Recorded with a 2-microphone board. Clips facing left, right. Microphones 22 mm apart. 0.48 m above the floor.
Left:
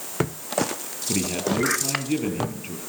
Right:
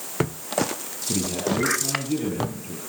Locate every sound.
1.1 s a man speaking: 50° left (ahead or behind), 6 m